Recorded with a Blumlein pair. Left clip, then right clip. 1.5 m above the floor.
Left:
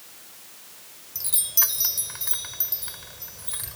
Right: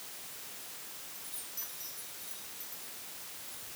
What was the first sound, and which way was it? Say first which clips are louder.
A chime: left 22 dB; 50° left.